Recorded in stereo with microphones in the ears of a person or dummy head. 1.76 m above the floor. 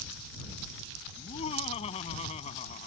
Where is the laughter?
35° left (ahead or behind); by 2.9 s 40° left (ahead or behind).